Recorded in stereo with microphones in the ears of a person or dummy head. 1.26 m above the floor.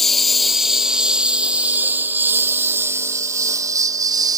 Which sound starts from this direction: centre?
A lawn mower, at 0.0 s.